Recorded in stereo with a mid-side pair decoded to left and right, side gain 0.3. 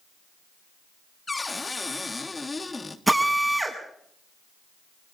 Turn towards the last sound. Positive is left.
turn(degrees=-20)